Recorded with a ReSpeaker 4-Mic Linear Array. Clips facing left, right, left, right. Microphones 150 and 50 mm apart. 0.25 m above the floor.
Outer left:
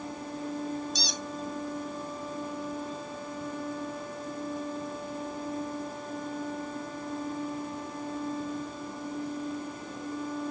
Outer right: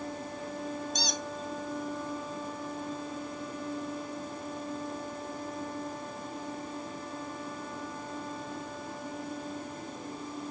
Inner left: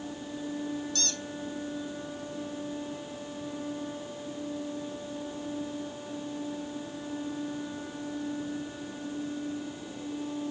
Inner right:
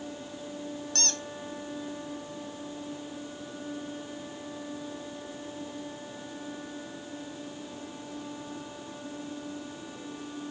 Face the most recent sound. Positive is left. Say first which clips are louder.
# outer right 1 dB, even
turn(degrees=-50)  # may be behind; listen again after turning